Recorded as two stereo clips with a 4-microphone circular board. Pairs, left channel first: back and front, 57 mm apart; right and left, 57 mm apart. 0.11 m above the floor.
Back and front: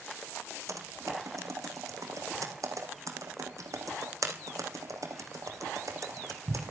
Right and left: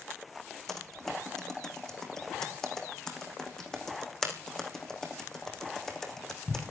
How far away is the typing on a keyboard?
About 4.5 m.